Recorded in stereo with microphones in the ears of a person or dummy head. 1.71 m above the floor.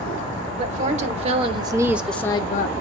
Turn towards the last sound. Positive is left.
turn(degrees=55)  # may be behind; listen again after turning